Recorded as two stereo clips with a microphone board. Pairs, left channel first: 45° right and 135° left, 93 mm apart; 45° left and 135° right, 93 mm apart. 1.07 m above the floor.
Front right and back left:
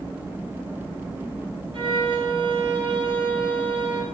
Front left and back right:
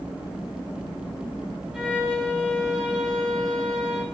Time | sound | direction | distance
1.7 | a violin | 140° left | 5.5 m